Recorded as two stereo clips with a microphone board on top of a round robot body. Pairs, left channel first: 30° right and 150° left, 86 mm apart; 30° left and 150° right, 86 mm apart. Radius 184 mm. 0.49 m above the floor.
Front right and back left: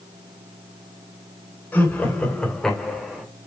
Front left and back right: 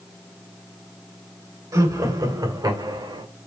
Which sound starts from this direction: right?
Laughter, at 1.7 s.